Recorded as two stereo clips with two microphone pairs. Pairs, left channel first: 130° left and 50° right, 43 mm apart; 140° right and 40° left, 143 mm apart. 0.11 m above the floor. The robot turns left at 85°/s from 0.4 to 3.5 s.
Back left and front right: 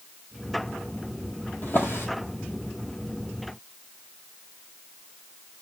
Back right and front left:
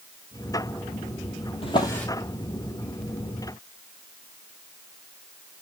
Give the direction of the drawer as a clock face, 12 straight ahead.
6 o'clock.